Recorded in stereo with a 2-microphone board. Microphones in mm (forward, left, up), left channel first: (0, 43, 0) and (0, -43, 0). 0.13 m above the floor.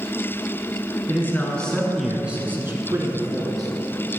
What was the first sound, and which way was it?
A man speaking, 25° left (ahead or behind).